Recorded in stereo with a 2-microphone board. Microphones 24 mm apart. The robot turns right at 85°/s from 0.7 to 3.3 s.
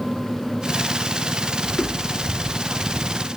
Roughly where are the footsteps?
Left.